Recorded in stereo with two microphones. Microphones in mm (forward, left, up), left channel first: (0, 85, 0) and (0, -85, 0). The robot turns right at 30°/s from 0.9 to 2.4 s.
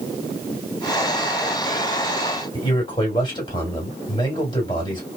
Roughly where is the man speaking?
Left.